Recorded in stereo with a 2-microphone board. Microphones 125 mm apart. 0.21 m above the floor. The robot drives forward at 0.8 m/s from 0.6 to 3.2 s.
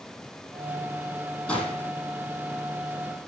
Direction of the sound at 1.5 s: 10° left (ahead or behind).